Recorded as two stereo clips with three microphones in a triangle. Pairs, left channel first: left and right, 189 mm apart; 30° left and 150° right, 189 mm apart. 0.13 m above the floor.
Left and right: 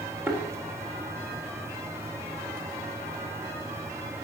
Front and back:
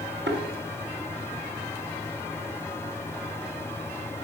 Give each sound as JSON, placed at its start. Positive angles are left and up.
{"t": 0.3, "sound": "a thud", "azimuth_deg": -170, "distance_m": 4.0}